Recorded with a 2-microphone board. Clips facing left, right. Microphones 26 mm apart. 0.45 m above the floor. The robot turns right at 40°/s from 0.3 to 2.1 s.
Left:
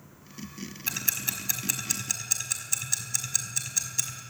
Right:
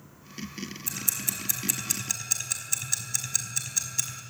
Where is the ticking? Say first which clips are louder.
Left 4 dB; 50° left (ahead or behind), 3.5 m; by 4.2 s centre (ahead or behind), 3.5 m.